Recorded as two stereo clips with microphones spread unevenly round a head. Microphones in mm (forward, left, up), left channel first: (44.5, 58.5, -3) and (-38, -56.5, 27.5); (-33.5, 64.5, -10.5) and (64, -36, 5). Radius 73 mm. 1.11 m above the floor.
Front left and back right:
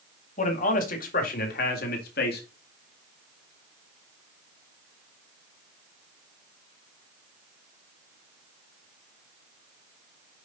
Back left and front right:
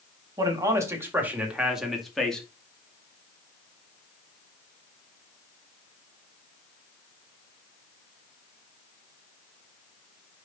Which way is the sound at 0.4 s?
20° left.